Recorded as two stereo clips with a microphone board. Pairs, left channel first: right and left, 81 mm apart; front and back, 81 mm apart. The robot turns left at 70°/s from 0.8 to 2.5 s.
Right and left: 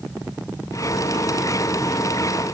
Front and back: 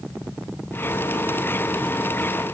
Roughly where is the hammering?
I don't hear hammering.